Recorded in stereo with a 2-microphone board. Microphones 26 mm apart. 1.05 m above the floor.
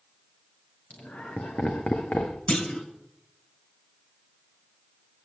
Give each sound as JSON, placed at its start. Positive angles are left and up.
{"t": 0.9, "sound": "laughter", "side_deg": 75, "distance_m": 1.1}
{"t": 2.5, "sound": "a clunk", "side_deg": 45, "distance_m": 2.0}